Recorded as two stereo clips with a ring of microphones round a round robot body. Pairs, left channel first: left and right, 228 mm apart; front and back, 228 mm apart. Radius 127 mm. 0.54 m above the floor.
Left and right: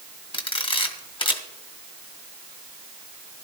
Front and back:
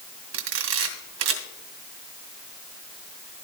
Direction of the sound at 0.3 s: 155° left.